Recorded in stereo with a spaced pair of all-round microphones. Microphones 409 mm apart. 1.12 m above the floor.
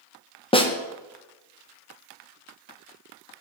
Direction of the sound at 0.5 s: 10° left (ahead or behind).